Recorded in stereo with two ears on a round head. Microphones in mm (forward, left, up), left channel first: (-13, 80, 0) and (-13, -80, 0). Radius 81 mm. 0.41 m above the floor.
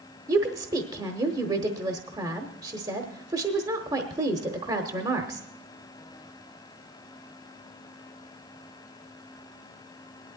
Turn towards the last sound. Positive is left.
turn(degrees=-20)  # may be behind; listen again after turning